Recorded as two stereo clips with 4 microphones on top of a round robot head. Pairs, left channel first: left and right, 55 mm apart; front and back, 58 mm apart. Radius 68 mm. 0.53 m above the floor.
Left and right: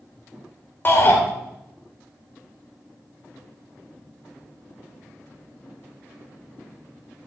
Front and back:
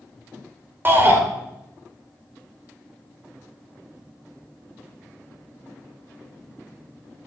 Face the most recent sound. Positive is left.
turn(degrees=135)